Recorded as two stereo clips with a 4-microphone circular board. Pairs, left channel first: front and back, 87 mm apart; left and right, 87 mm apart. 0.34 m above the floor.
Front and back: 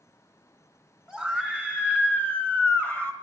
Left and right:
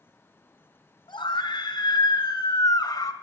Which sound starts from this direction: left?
A scream, at 1.1 s.